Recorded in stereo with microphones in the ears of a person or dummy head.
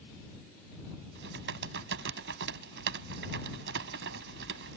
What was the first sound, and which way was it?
Typing on a keyboard, 65° right (ahead or behind).